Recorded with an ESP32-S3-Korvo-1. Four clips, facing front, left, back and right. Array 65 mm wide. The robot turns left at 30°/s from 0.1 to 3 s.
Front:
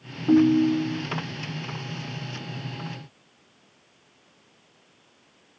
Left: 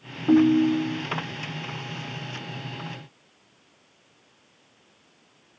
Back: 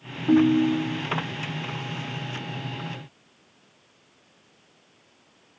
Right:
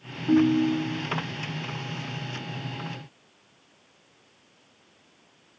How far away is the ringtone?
About 0.7 m.